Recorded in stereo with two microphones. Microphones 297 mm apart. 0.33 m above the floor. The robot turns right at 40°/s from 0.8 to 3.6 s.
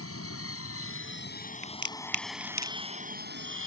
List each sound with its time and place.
0.0 s an aircraft: 120° left; by 3.7 s 130° right
1.6 s a crack: 75° right (ahead or behind); by 2.8 s 60° right (ahead or behind)